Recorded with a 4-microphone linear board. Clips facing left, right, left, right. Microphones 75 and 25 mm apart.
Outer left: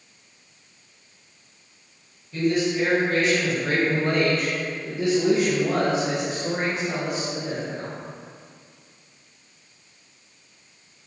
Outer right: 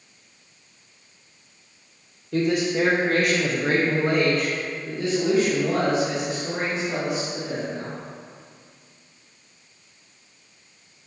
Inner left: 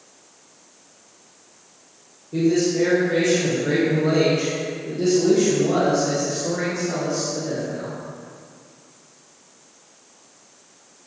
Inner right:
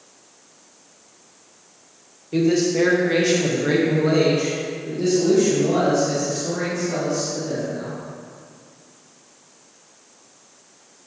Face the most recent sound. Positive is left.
turn(degrees=45)  # may be behind; listen again after turning